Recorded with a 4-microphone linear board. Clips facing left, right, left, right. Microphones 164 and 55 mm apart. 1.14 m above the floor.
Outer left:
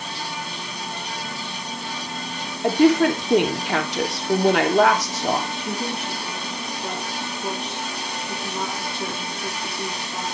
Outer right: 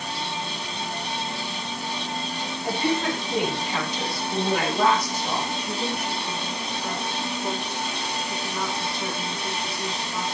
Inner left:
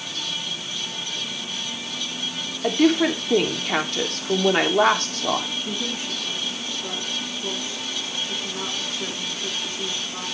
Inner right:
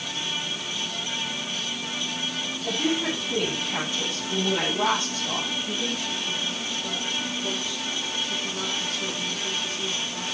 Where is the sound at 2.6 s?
70° left (ahead or behind), 3 m.